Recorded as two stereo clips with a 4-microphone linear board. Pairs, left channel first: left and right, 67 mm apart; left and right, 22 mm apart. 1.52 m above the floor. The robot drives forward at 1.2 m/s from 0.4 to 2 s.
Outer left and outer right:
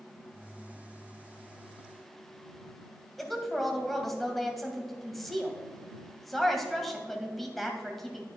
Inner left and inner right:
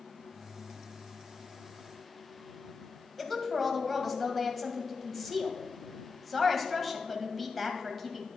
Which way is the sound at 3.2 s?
Centre (ahead or behind).